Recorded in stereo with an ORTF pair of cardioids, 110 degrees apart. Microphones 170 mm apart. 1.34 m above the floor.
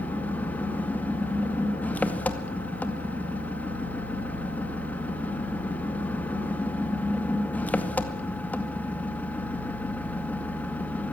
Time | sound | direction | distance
0.0 | an engine running | 10° left | 2 m